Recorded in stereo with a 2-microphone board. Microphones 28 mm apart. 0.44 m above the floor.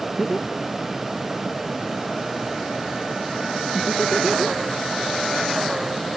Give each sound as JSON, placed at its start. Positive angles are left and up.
{"t": 0.2, "sound": "laughter", "side_deg": 5}